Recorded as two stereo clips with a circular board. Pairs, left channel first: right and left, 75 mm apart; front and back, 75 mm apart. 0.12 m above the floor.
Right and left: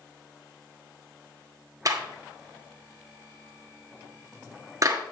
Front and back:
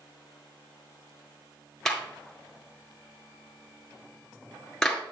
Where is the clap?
80° left, 1.6 m.